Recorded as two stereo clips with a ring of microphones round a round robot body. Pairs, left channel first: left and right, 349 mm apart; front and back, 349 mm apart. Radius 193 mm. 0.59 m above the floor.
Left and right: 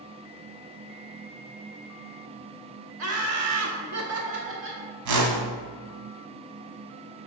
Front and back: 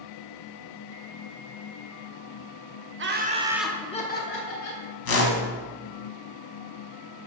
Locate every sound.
3.0 s laughter: 130° right, 1.1 m; by 4.8 s 35° right, 1.4 m
5.0 s a whoosh: 50° right, 1.2 m